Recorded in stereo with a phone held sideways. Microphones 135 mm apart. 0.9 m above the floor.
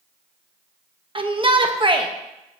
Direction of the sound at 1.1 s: 40° right (ahead or behind).